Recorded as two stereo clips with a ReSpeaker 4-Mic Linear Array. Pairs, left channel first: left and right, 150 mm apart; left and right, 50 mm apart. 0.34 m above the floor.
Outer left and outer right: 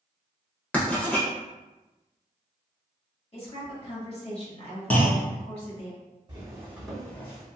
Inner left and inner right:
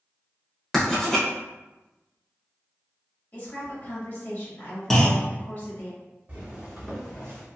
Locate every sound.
0.7 s writing: 10° left (ahead or behind), 0.8 m
3.3 s a woman speaking: 45° left (ahead or behind), 1.4 m
4.9 s a clunk: 10° left (ahead or behind), 0.5 m
6.3 s footsteps: 30° right (ahead or behind), 1.1 m; by 7.5 s 25° left (ahead or behind), 1.1 m